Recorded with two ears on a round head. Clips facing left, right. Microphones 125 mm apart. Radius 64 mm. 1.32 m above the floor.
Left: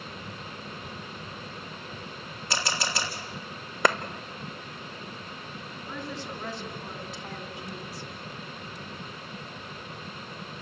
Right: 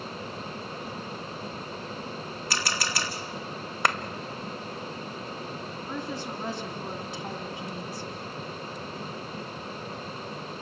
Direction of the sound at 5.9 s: 30° right (ahead or behind).